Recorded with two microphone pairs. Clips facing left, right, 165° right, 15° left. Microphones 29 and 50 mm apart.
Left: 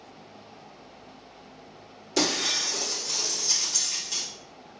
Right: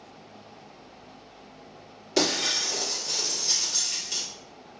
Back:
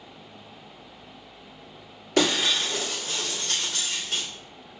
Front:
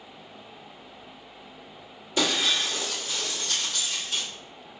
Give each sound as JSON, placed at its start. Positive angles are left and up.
{"t": 2.2, "sound": "breaking glass", "azimuth_deg": -155, "distance_m": 1.3}